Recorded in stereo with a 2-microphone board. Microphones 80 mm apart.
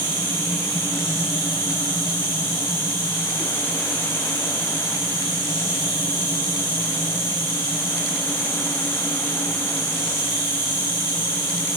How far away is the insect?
About 1.6 m.